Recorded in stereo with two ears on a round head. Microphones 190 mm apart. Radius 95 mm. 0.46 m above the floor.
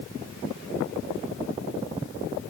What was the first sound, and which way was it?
Only background noise.